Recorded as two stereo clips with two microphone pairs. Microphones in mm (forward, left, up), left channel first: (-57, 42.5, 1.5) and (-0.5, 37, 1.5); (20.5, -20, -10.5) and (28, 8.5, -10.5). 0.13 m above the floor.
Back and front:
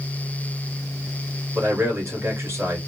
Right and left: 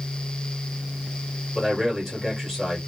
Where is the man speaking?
25° right, 1.9 m.